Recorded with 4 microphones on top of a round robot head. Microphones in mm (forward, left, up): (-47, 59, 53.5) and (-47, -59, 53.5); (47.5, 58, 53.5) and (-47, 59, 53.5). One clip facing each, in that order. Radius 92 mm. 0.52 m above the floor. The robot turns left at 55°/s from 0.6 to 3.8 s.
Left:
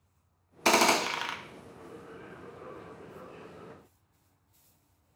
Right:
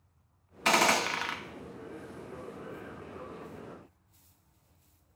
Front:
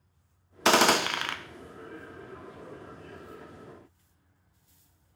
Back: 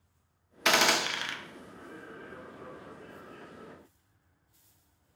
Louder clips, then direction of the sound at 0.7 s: Left 2 dB, front 5 dB; 50° left.